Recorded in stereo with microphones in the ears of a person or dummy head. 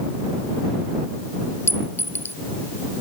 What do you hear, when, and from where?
1.7 s a clink: 15° left (ahead or behind)